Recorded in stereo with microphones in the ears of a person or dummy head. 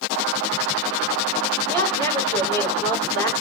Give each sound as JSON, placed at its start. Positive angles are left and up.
{"t": 1.7, "sound": "a woman speaking", "side_deg": 30, "distance_m": 4.0}